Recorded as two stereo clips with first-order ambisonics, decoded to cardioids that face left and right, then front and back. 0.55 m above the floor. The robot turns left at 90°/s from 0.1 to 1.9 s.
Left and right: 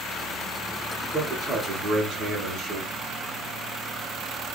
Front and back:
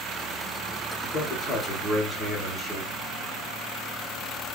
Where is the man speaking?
15° right, 1.4 m; by 2.9 s 95° right, 1.4 m.